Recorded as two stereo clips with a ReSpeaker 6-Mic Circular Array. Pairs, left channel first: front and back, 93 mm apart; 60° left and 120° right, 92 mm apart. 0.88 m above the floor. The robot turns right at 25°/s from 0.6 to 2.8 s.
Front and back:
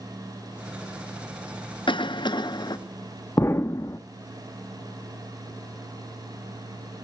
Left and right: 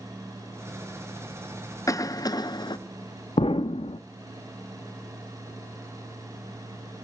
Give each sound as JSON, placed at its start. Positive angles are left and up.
{"t": 1.9, "sound": "a cough", "azimuth_deg": 10, "distance_m": 0.8}
{"t": 3.4, "sound": "an explosion", "azimuth_deg": 60, "distance_m": 0.6}